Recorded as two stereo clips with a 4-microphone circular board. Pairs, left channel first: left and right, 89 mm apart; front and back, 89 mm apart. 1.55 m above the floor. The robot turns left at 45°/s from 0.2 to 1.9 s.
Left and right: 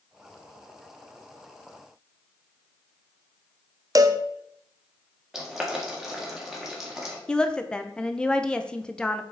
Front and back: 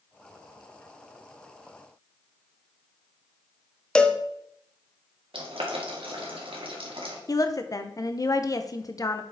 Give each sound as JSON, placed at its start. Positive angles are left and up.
{"t": 4.0, "sound": "a cowbell", "azimuth_deg": -75, "distance_m": 0.5}
{"t": 5.3, "sound": "boiling", "azimuth_deg": -175, "distance_m": 1.7}
{"t": 7.3, "sound": "a woman speaking", "azimuth_deg": 15, "distance_m": 0.6}